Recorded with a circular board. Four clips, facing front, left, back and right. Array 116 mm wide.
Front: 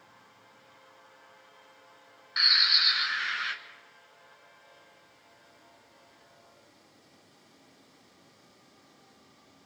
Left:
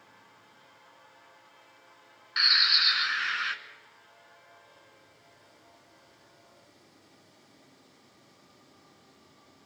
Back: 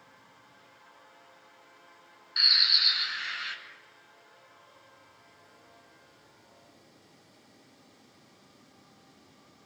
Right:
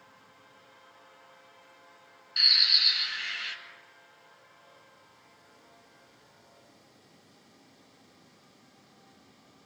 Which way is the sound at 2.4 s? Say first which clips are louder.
Left 6 dB, front 3 dB; 65° left.